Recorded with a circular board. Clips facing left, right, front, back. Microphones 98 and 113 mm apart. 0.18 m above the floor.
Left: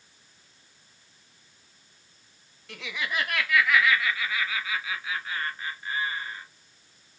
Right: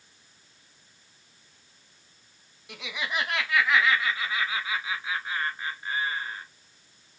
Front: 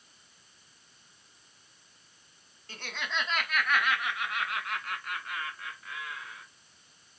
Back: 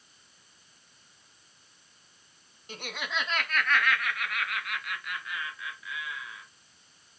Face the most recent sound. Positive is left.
turn(degrees=-30)